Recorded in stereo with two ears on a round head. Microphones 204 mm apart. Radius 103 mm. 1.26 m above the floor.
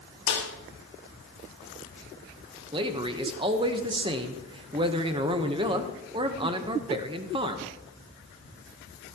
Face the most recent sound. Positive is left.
turn(degrees=-20)  # may be behind; listen again after turning